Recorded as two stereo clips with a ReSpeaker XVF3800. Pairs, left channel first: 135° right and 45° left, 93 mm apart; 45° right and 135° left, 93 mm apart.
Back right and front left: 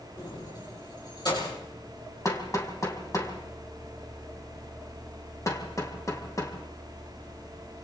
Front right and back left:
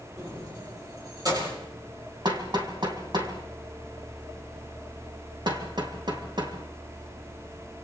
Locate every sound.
0.2 s keys jangling: 175° right, 9.5 m
2.2 s hammering: 170° left, 3.5 m